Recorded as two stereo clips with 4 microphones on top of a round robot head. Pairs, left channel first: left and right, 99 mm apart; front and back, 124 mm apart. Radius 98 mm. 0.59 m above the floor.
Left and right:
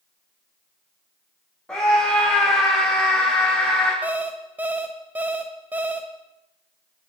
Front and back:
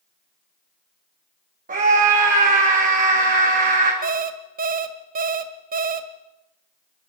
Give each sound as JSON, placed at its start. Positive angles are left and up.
{"t": 1.7, "sound": "a scream", "azimuth_deg": 175, "distance_m": 3.5}
{"t": 4.0, "sound": "an alarm clock", "azimuth_deg": -170, "distance_m": 1.4}